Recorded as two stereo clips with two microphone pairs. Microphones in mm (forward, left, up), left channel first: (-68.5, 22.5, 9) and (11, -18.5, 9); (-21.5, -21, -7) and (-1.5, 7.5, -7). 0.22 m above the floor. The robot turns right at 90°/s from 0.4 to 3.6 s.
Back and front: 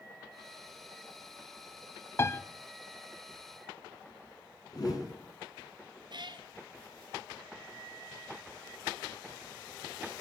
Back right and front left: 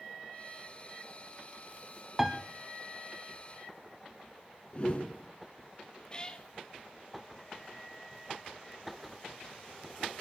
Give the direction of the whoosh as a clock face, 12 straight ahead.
6 o'clock.